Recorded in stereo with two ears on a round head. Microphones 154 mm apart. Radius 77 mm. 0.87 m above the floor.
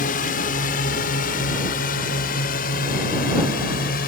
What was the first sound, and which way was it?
A drone, 50° left (ahead or behind).